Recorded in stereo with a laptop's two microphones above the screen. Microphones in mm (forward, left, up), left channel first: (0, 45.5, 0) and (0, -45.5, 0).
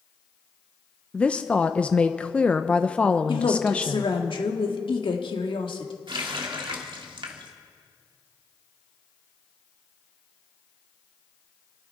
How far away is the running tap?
About 1.4 m.